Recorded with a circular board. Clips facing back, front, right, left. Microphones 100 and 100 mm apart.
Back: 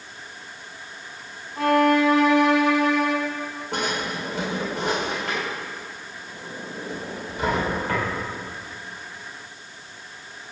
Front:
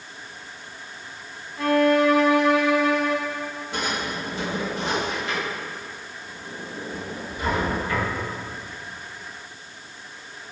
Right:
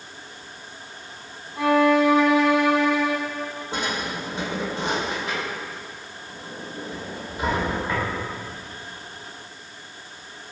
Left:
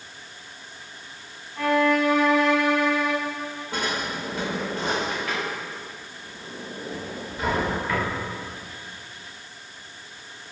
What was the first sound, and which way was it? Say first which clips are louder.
A violin: back 1 dB, right 3 dB; 160° right.